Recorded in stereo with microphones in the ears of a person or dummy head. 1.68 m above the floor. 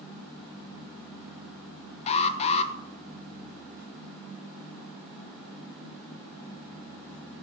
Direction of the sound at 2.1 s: 35° left (ahead or behind).